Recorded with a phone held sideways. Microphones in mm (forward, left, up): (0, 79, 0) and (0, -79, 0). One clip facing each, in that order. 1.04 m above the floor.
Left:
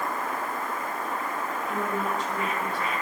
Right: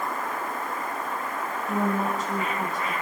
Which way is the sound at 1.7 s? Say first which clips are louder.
Right 5 dB; 45° right (ahead or behind).